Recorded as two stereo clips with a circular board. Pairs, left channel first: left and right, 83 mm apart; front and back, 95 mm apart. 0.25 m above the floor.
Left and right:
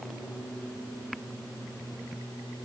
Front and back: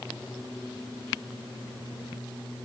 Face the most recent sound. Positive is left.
No sound to turn to.